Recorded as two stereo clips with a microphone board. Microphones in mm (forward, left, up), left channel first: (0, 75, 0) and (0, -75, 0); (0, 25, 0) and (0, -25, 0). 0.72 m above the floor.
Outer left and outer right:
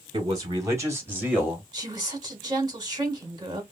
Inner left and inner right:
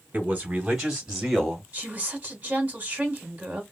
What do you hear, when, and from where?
0.1 s a man speaking: 30° right (ahead or behind), 3 m; by 1.6 s 5° right (ahead or behind), 2.5 m
1.7 s a woman speaking: 30° right (ahead or behind), 2 m